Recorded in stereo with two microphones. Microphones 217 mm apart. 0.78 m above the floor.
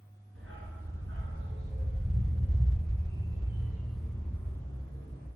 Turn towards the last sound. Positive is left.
turn(degrees=25)  # may be behind; listen again after turning